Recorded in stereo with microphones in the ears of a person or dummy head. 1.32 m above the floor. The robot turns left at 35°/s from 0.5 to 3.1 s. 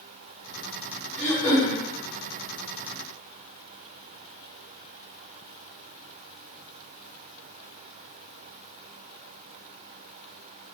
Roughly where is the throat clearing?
Centre.